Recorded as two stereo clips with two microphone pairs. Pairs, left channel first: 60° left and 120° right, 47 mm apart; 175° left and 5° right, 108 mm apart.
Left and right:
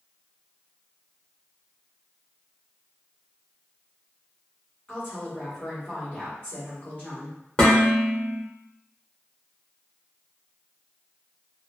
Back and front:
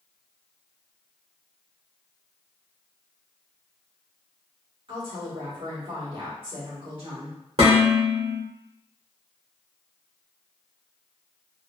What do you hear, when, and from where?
4.9 s a woman speaking: 10° left, 1.9 m
7.6 s dishes clattering: 5° right, 1.3 m